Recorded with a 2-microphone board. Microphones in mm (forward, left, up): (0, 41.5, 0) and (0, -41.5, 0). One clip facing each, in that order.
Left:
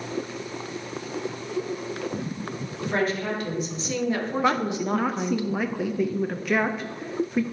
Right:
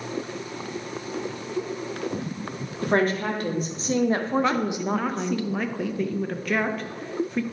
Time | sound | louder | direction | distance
2.8 | a woman speaking | right 3 dB | 50° right (ahead or behind) | 1.9 m
4.4 | a woman speaking | left 1 dB | 5° left (ahead or behind) | 0.6 m